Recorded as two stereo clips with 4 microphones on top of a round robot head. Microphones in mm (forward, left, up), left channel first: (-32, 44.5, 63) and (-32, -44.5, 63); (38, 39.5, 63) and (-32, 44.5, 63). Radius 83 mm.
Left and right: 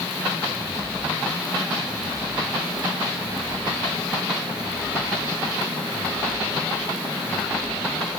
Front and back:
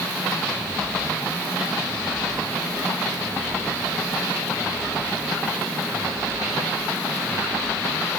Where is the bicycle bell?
No bicycle bell in this recording.